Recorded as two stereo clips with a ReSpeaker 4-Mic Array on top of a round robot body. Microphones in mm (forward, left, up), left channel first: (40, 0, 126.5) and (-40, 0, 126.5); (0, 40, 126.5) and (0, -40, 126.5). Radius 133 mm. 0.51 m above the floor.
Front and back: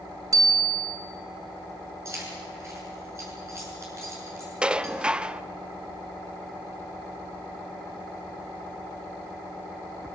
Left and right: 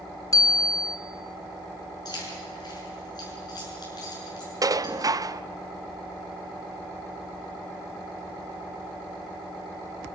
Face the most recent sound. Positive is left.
turn(degrees=-105)